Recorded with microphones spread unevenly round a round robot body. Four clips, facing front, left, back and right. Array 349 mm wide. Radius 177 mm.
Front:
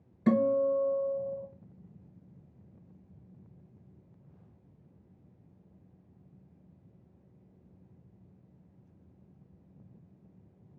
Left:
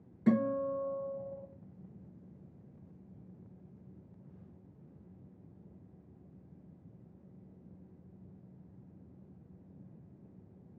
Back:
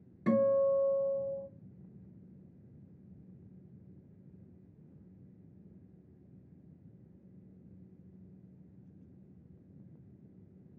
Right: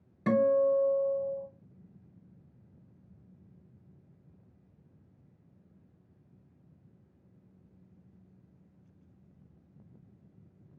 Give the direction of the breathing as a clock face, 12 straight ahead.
No breathing in this recording.